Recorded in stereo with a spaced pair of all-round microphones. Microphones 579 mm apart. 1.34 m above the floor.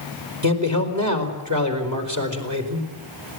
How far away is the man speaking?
About 4.5 m.